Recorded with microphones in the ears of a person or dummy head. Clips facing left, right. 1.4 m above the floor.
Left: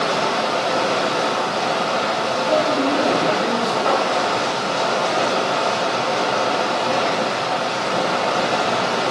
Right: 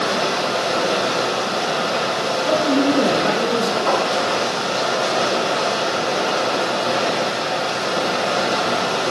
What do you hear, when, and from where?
0.0 s running water: 20° right (ahead or behind), 1.0 m
2.5 s a man speaking: 75° right (ahead or behind), 1.5 m
3.9 s a thud: 70° left (ahead or behind), 3.5 m